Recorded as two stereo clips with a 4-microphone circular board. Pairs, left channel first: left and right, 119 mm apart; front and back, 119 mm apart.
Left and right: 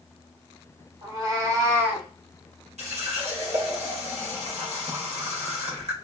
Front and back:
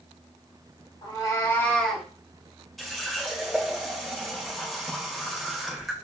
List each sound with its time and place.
1.0 s a cat meowing: 45° right, 1.2 m; by 2.1 s 125° right, 0.7 m
2.8 s a running tap: 90° right, 0.8 m